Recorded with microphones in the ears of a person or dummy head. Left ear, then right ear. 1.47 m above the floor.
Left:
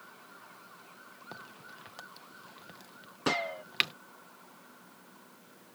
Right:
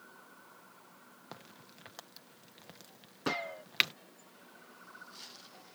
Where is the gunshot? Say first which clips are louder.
Left 5 dB; 15° left (ahead or behind).